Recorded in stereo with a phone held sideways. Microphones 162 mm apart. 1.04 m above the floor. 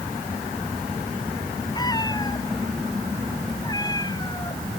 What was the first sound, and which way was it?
A cat meowing, 25° left (ahead or behind).